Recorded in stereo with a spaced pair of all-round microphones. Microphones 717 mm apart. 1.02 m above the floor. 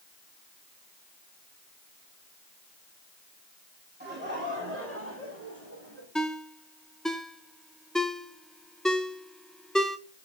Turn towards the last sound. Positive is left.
turn(degrees=0)  # may be behind; listen again after turning